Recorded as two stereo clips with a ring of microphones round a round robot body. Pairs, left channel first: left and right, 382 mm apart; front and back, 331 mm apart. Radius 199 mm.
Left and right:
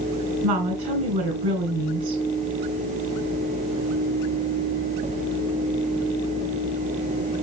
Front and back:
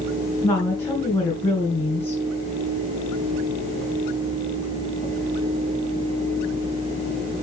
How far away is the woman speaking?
About 3 m.